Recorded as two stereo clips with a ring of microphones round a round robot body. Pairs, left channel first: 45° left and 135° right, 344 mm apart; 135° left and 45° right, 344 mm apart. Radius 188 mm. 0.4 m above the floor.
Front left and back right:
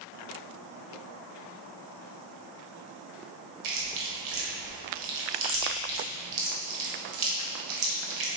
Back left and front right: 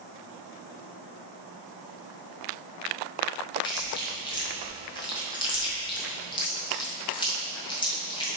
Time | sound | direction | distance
3.6 | chewing | 150° right | 1.5 m